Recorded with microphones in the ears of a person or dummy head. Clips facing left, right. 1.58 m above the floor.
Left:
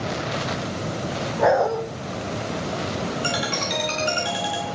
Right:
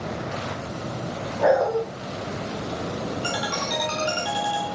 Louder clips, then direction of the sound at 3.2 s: Left 2 dB; 30° left (ahead or behind).